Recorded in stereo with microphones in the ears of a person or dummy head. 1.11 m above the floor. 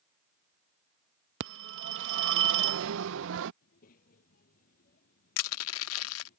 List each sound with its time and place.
1.4 s a phone ringing: 70° right (ahead or behind)
3.6 s a child speaking: 45° left (ahead or behind)
5.4 s crushing: 80° left